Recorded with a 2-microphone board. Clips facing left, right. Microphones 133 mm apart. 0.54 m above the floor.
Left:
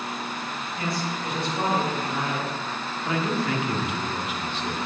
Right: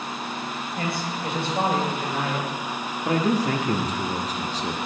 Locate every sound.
0.8 s a man speaking: 40° right (ahead or behind), 1.7 m
3.0 s a man speaking: 35° right (ahead or behind), 0.7 m